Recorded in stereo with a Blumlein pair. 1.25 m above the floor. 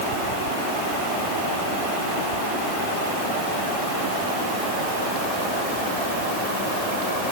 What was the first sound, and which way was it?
Only background noise.